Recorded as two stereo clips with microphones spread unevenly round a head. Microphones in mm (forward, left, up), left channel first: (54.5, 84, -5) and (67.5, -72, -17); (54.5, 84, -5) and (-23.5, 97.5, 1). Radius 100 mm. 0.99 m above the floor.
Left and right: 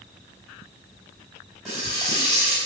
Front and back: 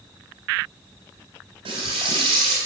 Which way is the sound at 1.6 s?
175° right.